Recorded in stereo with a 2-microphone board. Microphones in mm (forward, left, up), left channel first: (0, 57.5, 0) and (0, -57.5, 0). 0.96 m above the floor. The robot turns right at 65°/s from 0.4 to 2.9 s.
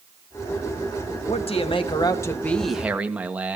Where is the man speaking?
85° left, 1.4 m; by 3.6 s 165° right, 1.4 m.